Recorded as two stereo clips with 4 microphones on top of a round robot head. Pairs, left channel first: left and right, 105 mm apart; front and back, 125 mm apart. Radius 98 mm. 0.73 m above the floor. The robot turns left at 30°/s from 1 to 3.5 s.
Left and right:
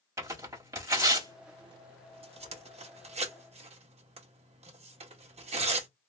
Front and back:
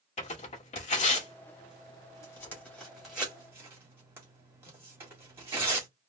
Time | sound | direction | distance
0.2 | tearing paper | 30° right | 1.6 m